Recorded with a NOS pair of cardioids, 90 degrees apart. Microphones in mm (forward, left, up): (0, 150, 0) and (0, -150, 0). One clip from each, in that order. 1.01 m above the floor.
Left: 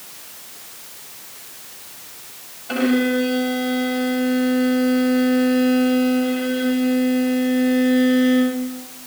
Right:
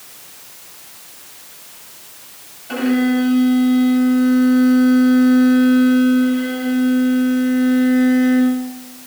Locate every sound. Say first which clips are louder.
2.7 s a violin: right 1 dB; 30° left, 5.5 m